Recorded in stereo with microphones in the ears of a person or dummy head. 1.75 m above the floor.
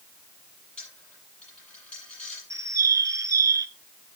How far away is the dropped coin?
About 6 m.